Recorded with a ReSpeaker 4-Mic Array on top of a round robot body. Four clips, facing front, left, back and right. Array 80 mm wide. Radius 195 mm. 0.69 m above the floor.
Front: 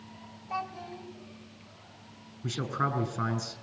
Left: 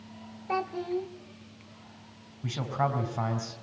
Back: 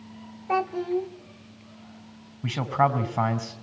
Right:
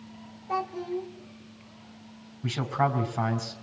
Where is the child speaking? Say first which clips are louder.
Even, back 11 dB; 160° left, 1.8 m.